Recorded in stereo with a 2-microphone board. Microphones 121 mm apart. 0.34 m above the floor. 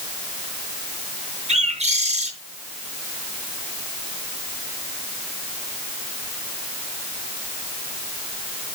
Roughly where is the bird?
Right.